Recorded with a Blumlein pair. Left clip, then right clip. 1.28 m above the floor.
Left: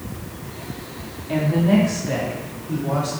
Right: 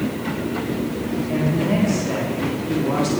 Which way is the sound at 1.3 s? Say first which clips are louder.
Left 3 dB; 10° left.